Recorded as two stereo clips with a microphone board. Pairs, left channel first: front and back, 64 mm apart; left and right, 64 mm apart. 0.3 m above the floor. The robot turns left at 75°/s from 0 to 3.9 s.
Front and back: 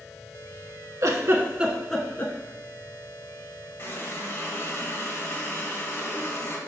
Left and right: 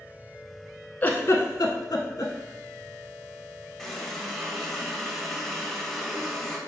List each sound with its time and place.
1.0 s a giggle: 150° left, 0.6 m; by 2.3 s 55° left, 0.6 m
3.8 s a running tap: 10° left, 0.7 m; by 6.6 s straight ahead, 0.7 m